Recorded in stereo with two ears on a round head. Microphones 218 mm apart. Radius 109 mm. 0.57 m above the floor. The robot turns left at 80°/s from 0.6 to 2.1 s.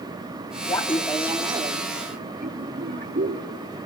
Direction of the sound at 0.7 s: 15° left (ahead or behind).